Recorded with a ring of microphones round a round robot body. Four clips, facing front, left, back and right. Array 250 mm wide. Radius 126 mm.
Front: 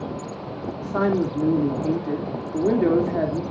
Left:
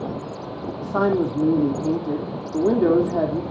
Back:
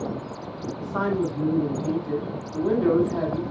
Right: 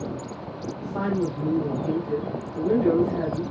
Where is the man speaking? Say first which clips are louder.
Left 6 dB, front 3 dB; 65° left, 2.5 m.